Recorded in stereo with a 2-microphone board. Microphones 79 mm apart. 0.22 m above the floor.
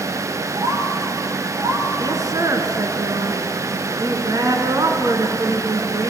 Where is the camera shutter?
I don't hear a camera shutter.